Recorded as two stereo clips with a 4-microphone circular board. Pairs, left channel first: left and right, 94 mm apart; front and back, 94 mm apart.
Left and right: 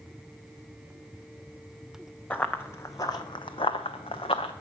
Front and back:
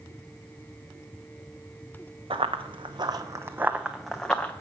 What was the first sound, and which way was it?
Running footsteps, 165° left.